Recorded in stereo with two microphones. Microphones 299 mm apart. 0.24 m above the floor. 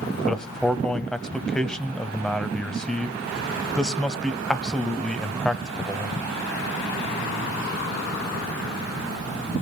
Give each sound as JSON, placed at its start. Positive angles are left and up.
{"t": 0.3, "sound": "a man speaking", "side_deg": 0, "distance_m": 1.0}